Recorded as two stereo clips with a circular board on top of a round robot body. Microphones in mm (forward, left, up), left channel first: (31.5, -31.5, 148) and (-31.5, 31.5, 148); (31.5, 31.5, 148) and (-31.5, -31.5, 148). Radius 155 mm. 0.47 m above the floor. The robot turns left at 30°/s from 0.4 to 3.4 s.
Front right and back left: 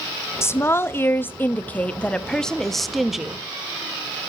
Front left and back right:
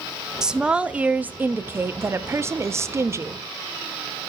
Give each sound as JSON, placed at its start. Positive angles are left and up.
{"t": 0.4, "sound": "a woman speaking", "azimuth_deg": -60, "distance_m": 0.8}